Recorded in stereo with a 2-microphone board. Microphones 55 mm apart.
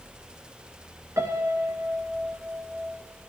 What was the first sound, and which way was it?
A piano, 75° right (ahead or behind).